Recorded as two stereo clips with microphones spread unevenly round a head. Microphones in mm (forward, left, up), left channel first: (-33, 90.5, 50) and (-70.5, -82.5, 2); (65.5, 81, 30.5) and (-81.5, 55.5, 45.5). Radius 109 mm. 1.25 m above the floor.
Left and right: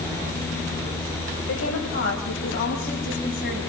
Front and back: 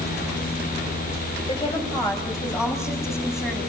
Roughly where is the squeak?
No squeak in this recording.